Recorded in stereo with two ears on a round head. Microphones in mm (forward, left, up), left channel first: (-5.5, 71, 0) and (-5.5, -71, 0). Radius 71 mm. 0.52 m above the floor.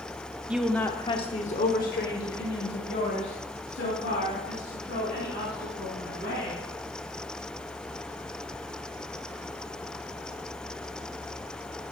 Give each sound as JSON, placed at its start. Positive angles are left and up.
{"t": 0.5, "sound": "a woman speaking", "side_deg": -10, "distance_m": 0.8}